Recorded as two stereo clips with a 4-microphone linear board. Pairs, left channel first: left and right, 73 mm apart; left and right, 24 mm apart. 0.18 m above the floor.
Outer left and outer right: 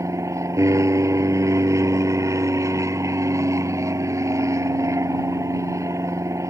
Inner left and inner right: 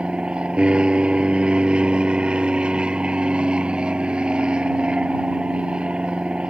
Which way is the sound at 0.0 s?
45° right (ahead or behind).